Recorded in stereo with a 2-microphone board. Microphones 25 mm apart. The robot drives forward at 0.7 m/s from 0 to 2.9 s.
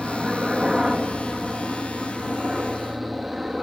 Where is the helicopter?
20° right (ahead or behind).